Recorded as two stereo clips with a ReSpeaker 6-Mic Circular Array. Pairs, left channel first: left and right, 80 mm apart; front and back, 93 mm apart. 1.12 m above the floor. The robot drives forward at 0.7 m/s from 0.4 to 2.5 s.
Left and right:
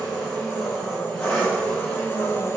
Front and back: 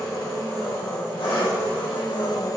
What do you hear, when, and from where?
0.0 s an engine running: 10° left, 1.9 m; by 2.6 s 40° left, 0.6 m